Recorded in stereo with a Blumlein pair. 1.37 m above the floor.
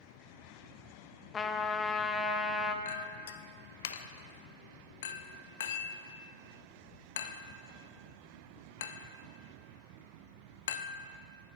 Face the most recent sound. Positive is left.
turn(degrees=60)